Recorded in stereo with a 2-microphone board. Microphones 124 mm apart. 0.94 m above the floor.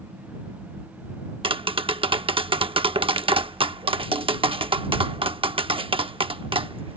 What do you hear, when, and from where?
1.4 s tapping: 45° right (ahead or behind)